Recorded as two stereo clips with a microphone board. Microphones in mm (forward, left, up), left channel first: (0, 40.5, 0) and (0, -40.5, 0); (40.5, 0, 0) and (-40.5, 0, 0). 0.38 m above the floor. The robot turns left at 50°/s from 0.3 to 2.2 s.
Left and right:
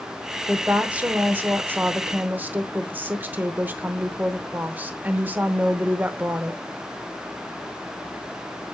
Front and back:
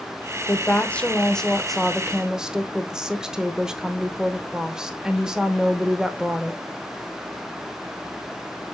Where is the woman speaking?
25° right, 0.8 m; by 6.6 s 110° right, 0.8 m.